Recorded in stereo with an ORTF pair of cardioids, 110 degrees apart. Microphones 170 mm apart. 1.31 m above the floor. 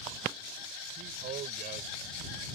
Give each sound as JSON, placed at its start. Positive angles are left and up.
{"t": 1.0, "sound": "a man speaking", "azimuth_deg": -60}